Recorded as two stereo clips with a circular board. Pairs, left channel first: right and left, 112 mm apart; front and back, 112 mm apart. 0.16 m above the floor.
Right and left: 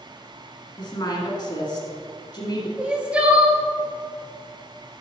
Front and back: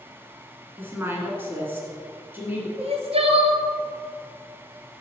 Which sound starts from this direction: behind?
Crying, at 2.8 s.